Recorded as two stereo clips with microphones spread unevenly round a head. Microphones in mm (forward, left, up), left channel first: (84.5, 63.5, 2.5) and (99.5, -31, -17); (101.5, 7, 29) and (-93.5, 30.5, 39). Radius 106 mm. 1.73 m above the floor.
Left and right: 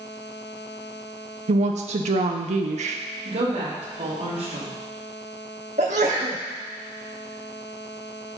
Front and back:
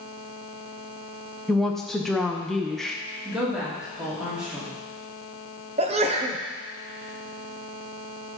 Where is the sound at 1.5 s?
95° right, 0.6 m.